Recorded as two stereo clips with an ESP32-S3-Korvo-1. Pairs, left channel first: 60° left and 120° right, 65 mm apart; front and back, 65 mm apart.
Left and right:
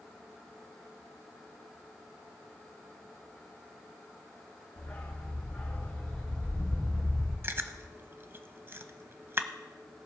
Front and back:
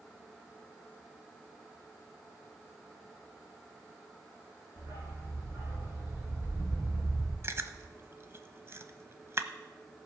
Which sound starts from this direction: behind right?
Chewing, at 7.4 s.